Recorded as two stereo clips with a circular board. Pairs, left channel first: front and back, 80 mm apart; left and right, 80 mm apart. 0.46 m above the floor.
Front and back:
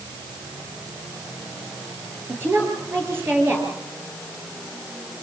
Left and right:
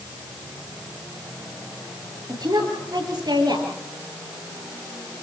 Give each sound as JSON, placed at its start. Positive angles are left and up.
{"t": 2.3, "sound": "a woman speaking", "azimuth_deg": -120, "distance_m": 9.5}